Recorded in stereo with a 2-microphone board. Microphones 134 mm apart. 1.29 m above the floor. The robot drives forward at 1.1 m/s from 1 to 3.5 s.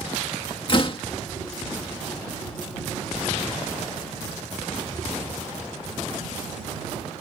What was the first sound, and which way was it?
A door slam, 40° left (ahead or behind).